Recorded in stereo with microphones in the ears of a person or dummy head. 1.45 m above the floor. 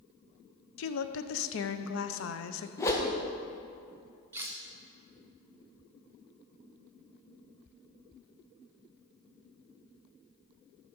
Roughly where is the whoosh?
Centre.